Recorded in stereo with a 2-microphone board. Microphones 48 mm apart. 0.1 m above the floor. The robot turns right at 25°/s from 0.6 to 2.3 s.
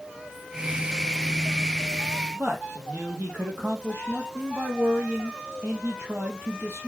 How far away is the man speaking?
About 3 m.